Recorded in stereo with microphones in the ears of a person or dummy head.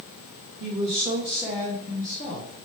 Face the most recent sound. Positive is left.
turn(degrees=60)  # may be behind; listen again after turning